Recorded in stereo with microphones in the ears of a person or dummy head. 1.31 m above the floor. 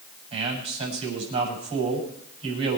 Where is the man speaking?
30° right (ahead or behind), 6.5 m.